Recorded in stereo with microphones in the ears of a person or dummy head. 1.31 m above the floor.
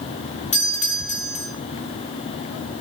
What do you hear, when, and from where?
0.5 s a doorbell: 35° left (ahead or behind), 2.5 m